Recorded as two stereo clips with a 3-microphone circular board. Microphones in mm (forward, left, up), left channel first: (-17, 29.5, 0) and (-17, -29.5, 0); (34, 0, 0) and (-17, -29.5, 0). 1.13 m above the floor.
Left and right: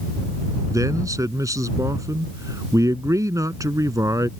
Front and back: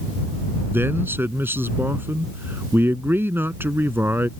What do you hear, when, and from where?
0.7 s a man speaking: 100° right